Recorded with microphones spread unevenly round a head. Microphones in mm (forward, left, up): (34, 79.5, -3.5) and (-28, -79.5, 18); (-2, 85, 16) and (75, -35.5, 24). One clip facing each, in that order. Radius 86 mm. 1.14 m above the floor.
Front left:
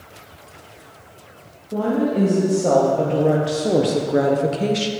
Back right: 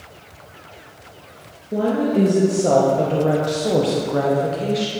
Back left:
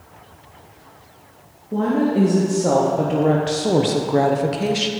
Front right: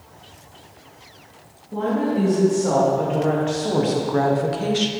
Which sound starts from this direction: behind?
A woman speaking, at 1.7 s.